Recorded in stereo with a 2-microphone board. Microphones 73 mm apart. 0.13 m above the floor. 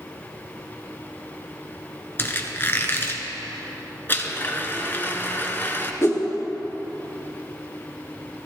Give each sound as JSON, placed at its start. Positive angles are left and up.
{"t": 2.2, "sound": "a squeak", "side_deg": 30, "distance_m": 1.0}
{"t": 4.1, "sound": "a blender", "side_deg": 30, "distance_m": 0.9}
{"t": 6.0, "sound": "a whoosh", "side_deg": 40, "distance_m": 2.5}